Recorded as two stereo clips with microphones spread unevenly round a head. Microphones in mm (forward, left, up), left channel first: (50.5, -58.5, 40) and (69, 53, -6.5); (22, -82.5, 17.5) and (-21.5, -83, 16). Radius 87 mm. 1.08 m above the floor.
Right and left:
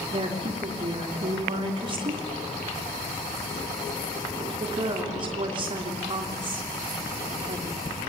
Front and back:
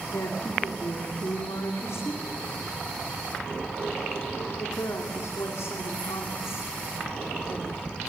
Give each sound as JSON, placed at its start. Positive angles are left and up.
{"t": 0.1, "sound": "a woman speaking", "azimuth_deg": 40, "distance_m": 2.5}